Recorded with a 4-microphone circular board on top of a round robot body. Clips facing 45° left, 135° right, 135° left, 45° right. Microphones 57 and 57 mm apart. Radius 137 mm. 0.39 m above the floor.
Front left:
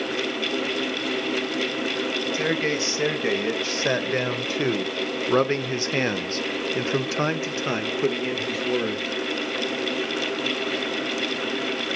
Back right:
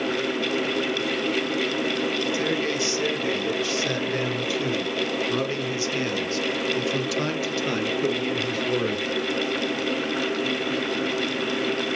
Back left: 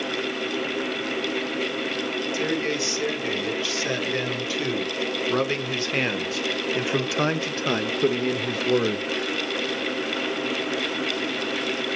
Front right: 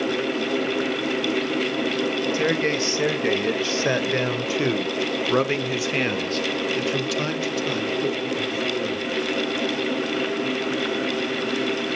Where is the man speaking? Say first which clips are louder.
Front left 1 dB, front right 2 dB; 5° right, 2.5 m; by 9.1 s 125° left, 1.6 m.